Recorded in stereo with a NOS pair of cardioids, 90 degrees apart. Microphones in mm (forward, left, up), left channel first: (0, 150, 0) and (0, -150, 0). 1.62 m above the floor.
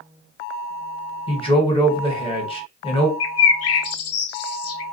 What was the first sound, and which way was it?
A man speaking, 20° left.